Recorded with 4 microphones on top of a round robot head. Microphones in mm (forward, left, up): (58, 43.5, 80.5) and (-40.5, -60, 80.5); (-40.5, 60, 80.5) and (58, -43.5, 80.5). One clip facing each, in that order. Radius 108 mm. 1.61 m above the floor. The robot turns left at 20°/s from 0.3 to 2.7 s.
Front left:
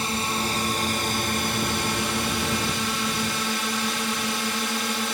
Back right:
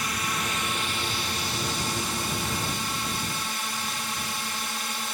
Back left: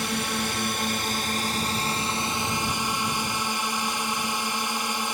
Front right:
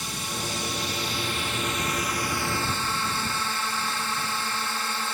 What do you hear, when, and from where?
0.0 s a drone: 105° left; by 5.2 s 60° left